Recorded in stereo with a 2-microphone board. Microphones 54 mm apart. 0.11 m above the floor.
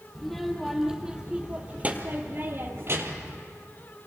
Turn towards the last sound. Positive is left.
turn(degrees=-55)  # may be behind; listen again after turning